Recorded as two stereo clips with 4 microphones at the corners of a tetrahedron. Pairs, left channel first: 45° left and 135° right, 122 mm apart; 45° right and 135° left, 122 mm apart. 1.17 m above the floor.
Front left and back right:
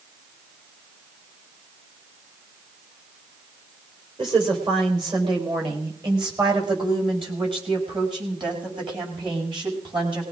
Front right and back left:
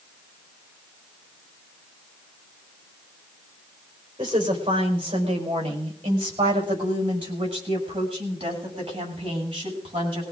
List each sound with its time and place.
4.2 s a woman speaking: straight behind, 4 m